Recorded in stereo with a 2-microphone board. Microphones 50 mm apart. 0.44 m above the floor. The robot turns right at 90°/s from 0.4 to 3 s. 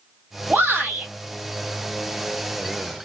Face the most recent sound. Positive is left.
turn(degrees=135)